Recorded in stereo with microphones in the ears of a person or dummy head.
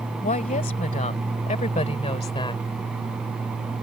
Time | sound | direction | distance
0.2 | a woman speaking | 35° left (ahead or behind) | ?